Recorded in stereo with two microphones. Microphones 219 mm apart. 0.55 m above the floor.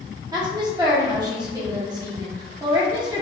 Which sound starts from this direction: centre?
A woman speaking, at 0.3 s.